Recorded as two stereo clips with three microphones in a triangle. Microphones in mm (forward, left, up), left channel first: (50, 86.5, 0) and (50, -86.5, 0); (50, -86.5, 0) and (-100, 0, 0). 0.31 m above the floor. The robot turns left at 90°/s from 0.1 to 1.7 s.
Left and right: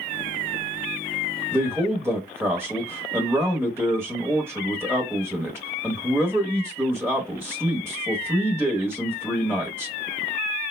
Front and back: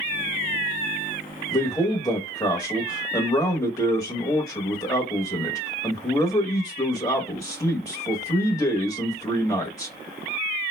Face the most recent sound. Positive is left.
turn(degrees=-40)